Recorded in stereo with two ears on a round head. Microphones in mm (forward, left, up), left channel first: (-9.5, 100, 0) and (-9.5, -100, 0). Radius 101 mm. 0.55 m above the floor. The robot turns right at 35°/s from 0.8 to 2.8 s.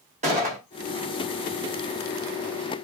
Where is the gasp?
No gasp in this recording.